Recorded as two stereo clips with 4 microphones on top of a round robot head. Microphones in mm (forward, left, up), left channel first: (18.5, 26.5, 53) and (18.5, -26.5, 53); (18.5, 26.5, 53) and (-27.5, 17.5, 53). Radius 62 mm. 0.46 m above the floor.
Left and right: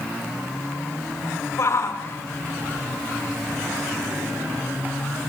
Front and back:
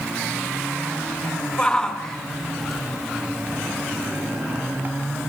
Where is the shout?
80° left, 2 m; by 5.0 s 140° right, 1.8 m.